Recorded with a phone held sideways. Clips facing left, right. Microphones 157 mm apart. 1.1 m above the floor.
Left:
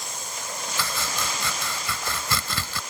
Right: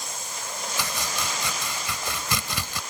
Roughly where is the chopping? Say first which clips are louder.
Left 1 dB; centre.